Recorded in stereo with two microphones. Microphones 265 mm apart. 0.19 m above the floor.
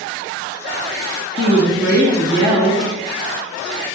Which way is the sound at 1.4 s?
50° left (ahead or behind).